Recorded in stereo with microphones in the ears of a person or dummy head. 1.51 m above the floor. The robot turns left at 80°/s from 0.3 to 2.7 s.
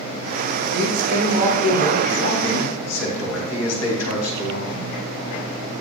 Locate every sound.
0.7 s a man speaking: 110° right, 2 m; by 5.0 s 90° left, 2 m